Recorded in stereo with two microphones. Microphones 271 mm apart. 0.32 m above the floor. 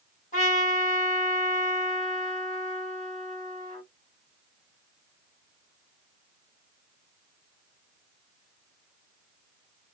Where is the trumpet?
25° left (ahead or behind), 2.5 m.